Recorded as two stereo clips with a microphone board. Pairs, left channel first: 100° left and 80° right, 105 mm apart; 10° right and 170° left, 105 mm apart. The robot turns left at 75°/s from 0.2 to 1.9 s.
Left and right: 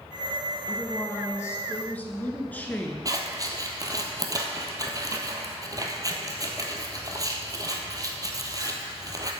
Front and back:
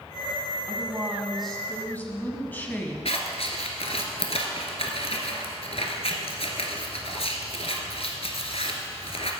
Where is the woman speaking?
135° left, 1.3 m; by 3.0 s 45° left, 1.3 m.